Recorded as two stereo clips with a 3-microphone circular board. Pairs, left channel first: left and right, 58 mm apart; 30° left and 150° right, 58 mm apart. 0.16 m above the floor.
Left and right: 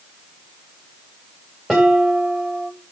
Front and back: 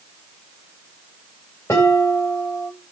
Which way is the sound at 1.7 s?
10° right.